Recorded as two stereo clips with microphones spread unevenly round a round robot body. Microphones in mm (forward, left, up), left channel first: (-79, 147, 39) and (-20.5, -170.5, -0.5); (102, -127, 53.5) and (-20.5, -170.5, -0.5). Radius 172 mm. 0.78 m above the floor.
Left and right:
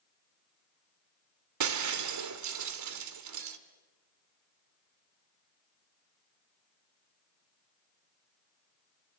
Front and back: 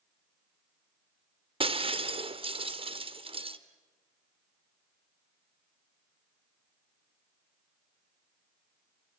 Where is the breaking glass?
115° right, 1.7 m.